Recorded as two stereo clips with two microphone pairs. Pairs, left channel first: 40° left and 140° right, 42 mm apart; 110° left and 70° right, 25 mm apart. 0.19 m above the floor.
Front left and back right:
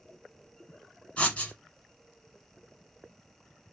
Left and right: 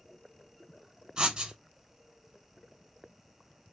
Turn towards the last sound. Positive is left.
turn(degrees=-15)